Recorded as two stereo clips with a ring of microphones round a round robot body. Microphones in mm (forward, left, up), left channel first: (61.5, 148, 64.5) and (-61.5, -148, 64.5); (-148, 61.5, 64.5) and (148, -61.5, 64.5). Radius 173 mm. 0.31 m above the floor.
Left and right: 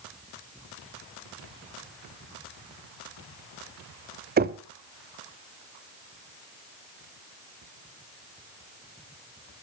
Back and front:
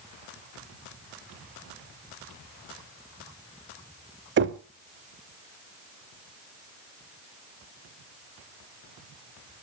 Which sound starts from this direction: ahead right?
Knocking, at 4.4 s.